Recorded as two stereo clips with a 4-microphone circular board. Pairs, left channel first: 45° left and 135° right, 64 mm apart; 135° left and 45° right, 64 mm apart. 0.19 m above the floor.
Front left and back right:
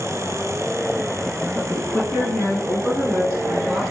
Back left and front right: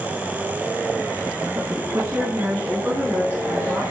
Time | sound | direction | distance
1.6 | a woman speaking | 15° right | 1.7 m